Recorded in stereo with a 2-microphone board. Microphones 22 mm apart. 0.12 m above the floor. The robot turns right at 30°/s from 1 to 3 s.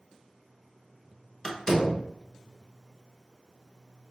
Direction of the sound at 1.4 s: 25° left (ahead or behind).